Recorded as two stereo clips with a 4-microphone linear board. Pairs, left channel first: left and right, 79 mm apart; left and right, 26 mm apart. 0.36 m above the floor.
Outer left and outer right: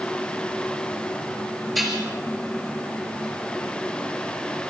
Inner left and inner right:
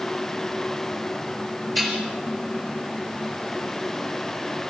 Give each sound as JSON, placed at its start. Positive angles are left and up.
{"t": 1.8, "sound": "dishes clattering", "side_deg": 0, "distance_m": 4.0}